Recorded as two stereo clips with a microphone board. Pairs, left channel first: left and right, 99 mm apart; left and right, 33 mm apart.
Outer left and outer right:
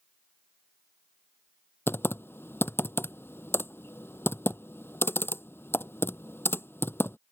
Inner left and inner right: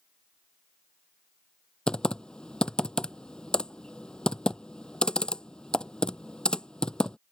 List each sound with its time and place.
1.9 s typing on a keyboard: 20° left (ahead or behind)